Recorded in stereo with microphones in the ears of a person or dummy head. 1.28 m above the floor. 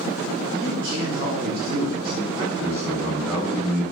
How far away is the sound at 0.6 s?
About 4 m.